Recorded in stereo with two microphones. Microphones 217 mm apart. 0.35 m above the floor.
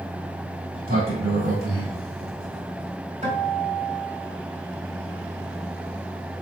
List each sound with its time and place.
0.7 s a sliding door: 80° right, 2.5 m
3.2 s a guitar: 30° right (ahead or behind), 1.9 m